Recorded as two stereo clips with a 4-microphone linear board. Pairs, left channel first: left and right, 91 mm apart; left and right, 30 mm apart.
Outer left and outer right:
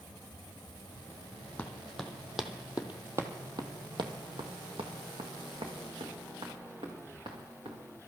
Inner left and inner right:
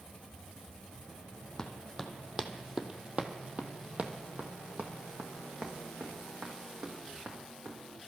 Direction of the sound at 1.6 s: 15° left (ahead or behind).